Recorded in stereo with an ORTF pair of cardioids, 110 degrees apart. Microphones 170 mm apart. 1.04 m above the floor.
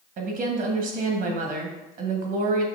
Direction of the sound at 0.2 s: 55° right.